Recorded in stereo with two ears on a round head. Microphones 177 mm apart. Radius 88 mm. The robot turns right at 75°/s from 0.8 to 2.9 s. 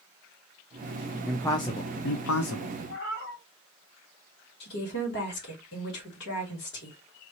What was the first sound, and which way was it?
A man speaking, straight ahead.